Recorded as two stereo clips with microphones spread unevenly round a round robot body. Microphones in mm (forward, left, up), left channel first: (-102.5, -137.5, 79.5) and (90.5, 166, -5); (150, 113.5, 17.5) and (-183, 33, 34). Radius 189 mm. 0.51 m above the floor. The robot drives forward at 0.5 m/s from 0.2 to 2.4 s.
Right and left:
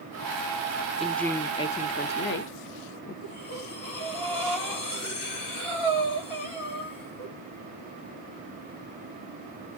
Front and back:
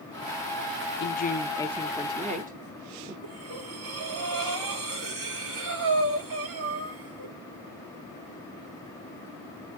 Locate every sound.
1.0 s a woman speaking: 15° right, 0.8 m; by 3.1 s 150° right, 0.7 m
3.2 s breathing: 160° right, 7.5 m